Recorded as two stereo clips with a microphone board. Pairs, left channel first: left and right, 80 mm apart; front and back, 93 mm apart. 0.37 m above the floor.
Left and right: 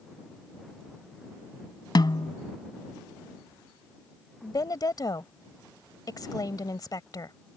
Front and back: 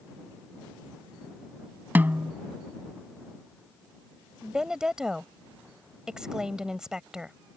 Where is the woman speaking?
100° left.